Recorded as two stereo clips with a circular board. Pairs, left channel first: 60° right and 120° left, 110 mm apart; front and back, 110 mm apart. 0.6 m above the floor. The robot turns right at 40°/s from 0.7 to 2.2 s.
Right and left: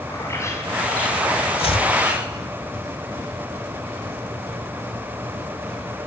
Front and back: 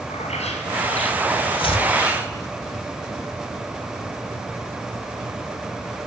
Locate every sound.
0.1 s a bird: 5° left, 5 m; by 2.5 s 65° left, 5 m
1.6 s chopping: 35° right, 1.4 m; by 1.9 s 25° right, 1.4 m